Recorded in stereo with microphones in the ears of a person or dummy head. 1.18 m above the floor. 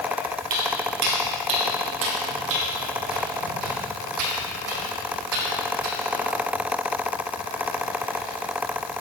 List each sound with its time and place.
0.5 s footsteps: 50° right (ahead or behind), 1.9 m; by 6.3 s 75° right (ahead or behind), 4.5 m